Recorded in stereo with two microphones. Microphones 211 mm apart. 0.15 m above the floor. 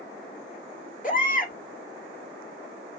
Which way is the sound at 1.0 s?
40° left (ahead or behind).